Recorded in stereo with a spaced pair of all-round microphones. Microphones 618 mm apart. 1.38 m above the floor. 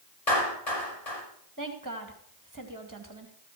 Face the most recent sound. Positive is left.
turn(degrees=-30)  # may be behind; listen again after turning